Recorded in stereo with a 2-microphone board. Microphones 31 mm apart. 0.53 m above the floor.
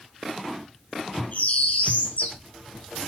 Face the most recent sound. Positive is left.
turn(degrees=70)  # may be behind; listen again after turning